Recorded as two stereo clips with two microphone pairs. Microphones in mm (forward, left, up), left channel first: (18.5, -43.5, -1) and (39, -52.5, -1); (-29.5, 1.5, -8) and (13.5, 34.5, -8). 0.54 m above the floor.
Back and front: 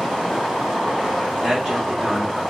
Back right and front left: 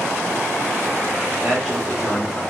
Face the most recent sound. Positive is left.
turn(degrees=-45)